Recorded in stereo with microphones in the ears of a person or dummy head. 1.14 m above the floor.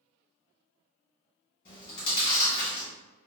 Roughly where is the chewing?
Left.